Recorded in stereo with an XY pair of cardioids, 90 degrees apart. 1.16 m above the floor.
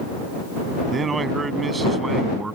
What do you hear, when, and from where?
0.9 s a man speaking: 40° right; by 2.6 s 25° right